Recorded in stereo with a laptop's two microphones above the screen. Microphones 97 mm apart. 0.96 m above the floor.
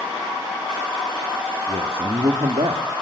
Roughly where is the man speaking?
Right.